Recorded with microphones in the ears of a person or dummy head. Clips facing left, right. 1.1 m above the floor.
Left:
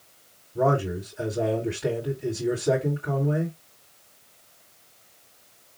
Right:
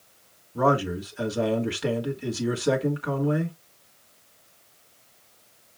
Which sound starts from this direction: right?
A man speaking, at 0.6 s.